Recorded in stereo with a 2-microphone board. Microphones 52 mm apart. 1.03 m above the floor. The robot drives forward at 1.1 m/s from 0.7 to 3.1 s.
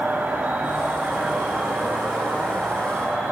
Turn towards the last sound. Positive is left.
turn(degrees=-15)  # may be behind; listen again after turning